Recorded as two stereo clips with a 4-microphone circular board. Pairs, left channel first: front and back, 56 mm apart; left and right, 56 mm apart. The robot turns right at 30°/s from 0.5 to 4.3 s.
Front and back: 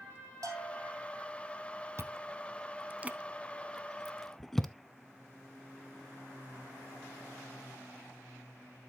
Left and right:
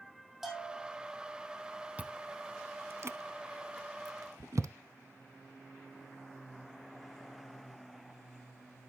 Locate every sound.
0.4 s a bell: 175° right, 3.5 m; by 1.0 s 160° right, 3.5 m
2.0 s chewing: 150° right, 0.6 m; by 4.7 s 85° right, 0.6 m